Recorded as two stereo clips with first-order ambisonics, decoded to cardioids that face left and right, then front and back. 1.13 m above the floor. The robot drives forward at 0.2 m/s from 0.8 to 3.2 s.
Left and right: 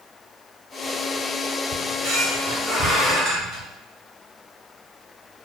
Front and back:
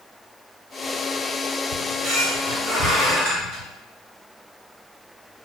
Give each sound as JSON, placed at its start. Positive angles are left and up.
{"t": 1.7, "sound": "a squeak", "azimuth_deg": -140, "distance_m": 1.4}